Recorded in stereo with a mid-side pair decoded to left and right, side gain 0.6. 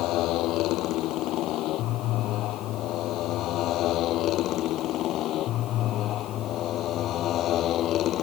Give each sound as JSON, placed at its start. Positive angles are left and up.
{"t": 0.0, "sound": "a motorcycle", "azimuth_deg": 65}